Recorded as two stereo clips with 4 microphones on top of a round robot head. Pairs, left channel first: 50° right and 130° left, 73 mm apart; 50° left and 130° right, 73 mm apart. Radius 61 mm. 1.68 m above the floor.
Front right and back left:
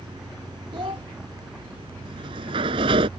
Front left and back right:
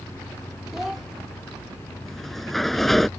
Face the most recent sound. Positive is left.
turn(degrees=135)